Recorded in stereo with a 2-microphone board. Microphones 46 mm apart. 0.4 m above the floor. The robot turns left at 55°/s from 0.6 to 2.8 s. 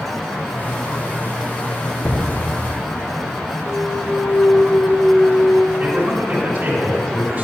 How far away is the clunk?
About 0.5 m.